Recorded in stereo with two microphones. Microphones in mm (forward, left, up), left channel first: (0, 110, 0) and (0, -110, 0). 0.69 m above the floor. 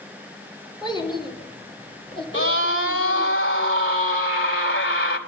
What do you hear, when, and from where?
0.8 s a child speaking: 20° left (ahead or behind), 5.5 m; by 3.3 s 25° left (ahead or behind), 7.5 m
2.3 s a scream: 60° left (ahead or behind), 3.5 m